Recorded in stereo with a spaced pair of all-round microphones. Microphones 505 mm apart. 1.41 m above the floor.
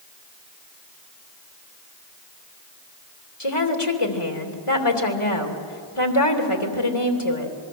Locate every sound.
3.4 s a woman speaking: 80° left, 3 m